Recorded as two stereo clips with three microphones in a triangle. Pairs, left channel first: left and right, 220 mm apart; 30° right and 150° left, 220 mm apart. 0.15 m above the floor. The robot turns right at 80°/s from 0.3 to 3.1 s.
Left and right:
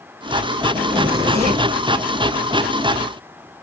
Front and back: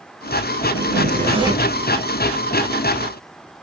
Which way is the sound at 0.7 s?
160° left.